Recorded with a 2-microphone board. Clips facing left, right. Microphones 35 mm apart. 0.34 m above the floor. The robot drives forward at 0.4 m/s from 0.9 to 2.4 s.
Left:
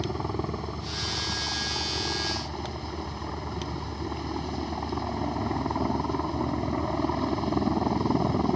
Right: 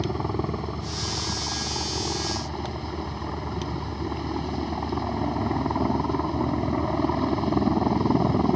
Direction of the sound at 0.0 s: 10° right (ahead or behind).